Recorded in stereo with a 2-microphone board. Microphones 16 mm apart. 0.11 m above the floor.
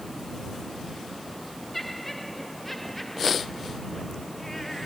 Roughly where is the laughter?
Centre.